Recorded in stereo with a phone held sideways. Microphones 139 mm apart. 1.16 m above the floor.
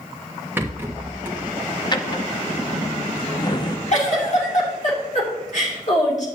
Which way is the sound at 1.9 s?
30° left (ahead or behind).